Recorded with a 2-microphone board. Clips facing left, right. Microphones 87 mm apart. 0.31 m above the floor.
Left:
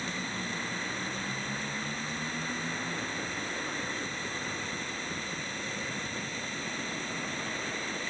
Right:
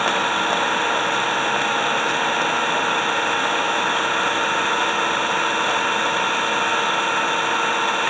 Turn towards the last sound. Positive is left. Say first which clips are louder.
# right 17 dB
turn(degrees=-80)